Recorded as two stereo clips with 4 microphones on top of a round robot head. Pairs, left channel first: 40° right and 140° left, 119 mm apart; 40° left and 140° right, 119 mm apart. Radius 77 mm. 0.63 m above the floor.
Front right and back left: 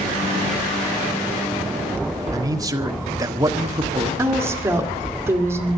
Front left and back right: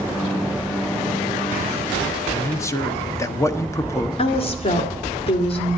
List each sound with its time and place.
2.3 s a man speaking: 95° left, 1.3 m
4.2 s a woman speaking: 70° left, 2 m